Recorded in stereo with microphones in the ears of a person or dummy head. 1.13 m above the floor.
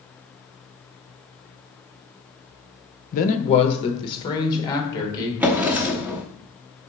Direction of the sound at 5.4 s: 10° right (ahead or behind).